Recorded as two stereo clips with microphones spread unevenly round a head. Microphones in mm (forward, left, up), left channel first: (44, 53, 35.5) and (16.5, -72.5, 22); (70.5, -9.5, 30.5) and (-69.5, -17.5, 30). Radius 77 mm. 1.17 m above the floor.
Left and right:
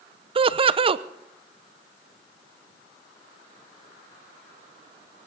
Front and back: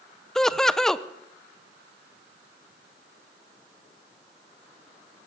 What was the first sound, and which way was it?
Laughter, 85° right.